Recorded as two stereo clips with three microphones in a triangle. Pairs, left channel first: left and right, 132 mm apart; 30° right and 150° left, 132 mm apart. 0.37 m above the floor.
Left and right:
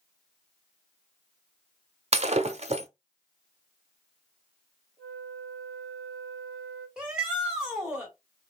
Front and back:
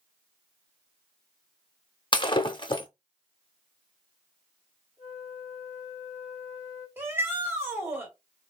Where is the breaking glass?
75° right, 0.6 m.